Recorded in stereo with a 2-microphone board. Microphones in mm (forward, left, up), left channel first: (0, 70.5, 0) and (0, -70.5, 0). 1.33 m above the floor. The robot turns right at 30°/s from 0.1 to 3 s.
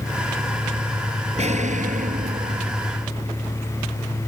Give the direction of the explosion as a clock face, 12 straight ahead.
4 o'clock.